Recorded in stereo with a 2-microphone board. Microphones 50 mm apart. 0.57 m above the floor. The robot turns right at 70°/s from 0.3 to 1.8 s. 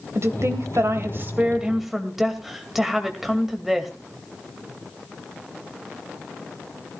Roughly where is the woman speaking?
Right.